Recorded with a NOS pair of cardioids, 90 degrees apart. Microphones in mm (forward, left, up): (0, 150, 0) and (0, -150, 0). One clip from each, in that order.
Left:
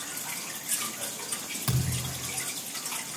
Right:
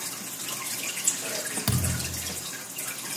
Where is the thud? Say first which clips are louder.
Right 3 dB; 35° right, 3 m.